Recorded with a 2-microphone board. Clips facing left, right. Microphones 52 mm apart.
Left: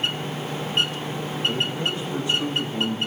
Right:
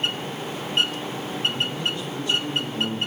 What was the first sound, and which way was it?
A man speaking, 25° left (ahead or behind).